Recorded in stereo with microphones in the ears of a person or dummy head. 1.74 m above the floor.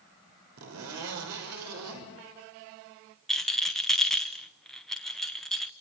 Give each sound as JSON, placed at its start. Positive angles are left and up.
{"t": 0.6, "sound": "a zipper", "side_deg": -85, "distance_m": 6.0}
{"t": 3.3, "sound": "a rattle", "side_deg": 5, "distance_m": 1.1}